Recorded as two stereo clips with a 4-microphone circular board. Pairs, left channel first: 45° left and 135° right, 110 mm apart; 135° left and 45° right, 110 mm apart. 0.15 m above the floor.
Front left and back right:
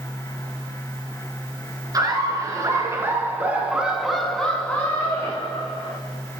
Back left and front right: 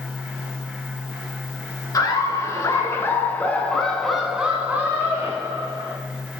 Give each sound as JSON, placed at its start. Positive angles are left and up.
{"t": 1.9, "sound": "laughter", "azimuth_deg": 180, "distance_m": 1.5}